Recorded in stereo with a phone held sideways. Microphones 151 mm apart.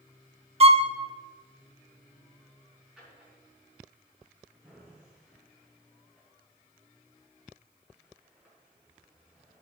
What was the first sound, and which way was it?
A violin, 40° right (ahead or behind).